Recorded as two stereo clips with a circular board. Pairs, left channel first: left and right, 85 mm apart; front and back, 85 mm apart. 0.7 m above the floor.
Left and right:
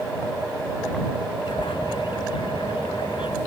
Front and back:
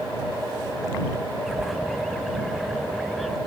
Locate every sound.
1.5 s a bird: 90° left